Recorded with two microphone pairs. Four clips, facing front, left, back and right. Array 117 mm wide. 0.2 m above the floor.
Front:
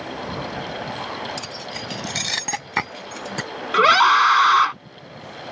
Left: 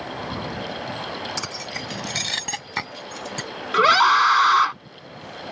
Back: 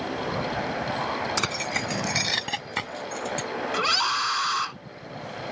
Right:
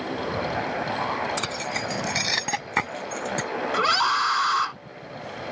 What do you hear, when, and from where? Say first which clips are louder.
1.4 s keys jangling: right 3 dB, back 4 dB; straight behind; by 3.5 s 20° right
3.7 s a scream: left 8 dB, front 14 dB; 25° left